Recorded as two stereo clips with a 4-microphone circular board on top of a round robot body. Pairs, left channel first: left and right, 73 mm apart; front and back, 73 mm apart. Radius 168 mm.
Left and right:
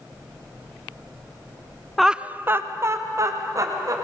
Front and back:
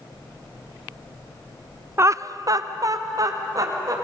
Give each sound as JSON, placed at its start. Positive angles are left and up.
{"t": 2.0, "sound": "laughter", "azimuth_deg": 180, "distance_m": 0.7}